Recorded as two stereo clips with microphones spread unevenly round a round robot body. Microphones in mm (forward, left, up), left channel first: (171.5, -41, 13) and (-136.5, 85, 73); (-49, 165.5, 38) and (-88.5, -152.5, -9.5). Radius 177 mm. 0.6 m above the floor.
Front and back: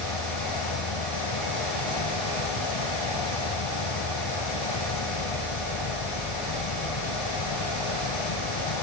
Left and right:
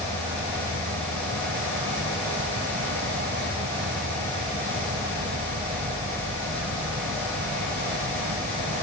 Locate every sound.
0.0 s an insect: 30° right